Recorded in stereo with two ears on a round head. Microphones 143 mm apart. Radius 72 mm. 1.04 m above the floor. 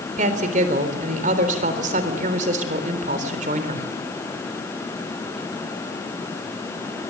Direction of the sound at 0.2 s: 50° right (ahead or behind).